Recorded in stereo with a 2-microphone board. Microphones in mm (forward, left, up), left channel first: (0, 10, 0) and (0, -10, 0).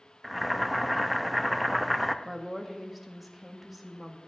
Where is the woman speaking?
10° right (ahead or behind), 1.5 m.